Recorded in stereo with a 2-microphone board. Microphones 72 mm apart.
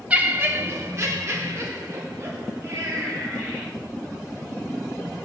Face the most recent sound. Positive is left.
turn(degrees=-40)  # may be behind; listen again after turning